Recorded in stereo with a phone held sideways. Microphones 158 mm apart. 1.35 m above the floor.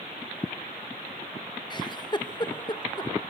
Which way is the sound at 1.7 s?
25° left (ahead or behind).